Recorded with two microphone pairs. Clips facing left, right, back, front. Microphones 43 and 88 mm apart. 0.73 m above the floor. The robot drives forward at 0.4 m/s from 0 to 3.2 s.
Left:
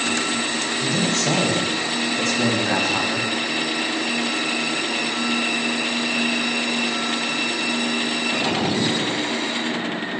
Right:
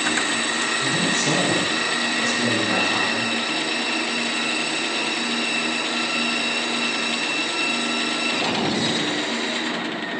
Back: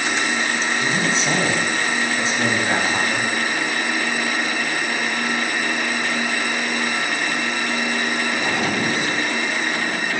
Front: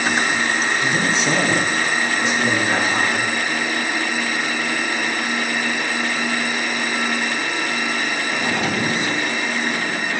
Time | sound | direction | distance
0.8 | a man speaking | 115° left | 5.5 m